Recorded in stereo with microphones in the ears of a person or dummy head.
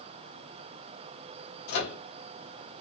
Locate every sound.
1.7 s a microwave: 60° left (ahead or behind), 0.9 m